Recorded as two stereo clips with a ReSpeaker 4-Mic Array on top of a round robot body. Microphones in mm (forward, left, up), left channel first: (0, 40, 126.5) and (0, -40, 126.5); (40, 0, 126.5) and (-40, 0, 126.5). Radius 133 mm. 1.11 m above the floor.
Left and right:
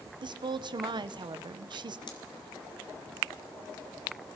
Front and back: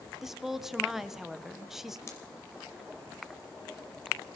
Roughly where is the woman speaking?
Right.